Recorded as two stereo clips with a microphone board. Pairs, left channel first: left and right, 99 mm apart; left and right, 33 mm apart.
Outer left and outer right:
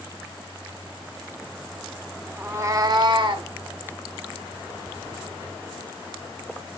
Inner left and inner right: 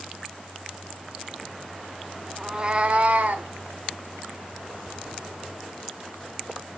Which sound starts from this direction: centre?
A cat meowing, at 2.4 s.